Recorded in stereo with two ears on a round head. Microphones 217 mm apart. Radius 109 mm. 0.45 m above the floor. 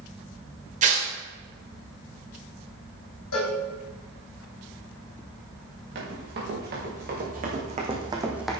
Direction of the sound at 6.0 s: 50° right (ahead or behind).